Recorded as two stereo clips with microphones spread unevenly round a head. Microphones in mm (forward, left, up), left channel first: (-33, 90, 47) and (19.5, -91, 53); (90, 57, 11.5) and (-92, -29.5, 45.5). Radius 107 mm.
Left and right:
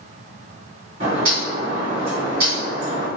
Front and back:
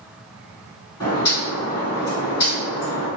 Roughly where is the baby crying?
I don't hear a baby crying.